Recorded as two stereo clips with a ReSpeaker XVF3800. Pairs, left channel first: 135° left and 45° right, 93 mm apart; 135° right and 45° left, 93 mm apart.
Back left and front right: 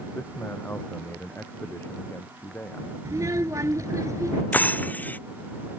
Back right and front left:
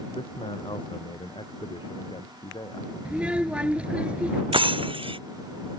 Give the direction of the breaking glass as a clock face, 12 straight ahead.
10 o'clock.